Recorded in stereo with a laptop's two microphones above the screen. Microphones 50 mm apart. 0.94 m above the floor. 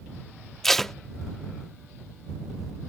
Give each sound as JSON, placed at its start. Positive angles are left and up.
{"t": 0.6, "sound": "tape being pulled", "side_deg": 5}